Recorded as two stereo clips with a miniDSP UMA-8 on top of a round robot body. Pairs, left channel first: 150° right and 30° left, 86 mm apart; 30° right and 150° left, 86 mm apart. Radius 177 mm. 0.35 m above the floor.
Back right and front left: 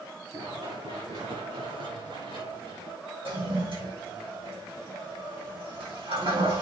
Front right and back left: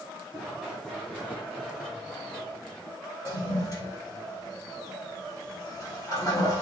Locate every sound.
0.3 s running footsteps: 45° left, 4 m; by 3.0 s 50° left, 7 m
3.2 s a toilet flushing: 20° left, 6.5 m